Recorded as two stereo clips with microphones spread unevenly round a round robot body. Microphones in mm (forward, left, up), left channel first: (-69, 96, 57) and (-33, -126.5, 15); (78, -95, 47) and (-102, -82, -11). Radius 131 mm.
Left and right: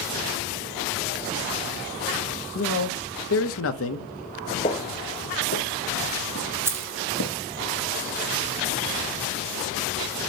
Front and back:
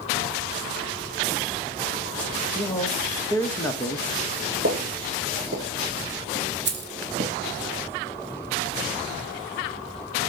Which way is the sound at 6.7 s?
160° right.